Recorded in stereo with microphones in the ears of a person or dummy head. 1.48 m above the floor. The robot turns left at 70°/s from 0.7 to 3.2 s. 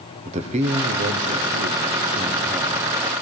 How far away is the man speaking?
About 0.9 m.